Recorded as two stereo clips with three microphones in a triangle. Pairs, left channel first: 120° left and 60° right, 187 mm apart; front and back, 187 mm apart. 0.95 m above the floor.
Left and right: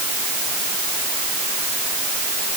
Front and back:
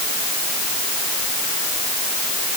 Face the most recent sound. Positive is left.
No sound to turn to.